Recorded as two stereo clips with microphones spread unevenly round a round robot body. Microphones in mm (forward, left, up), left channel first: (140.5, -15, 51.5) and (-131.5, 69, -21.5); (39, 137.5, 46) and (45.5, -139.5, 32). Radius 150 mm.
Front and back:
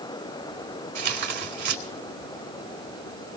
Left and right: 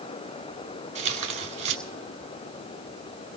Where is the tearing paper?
155° right, 3.5 m.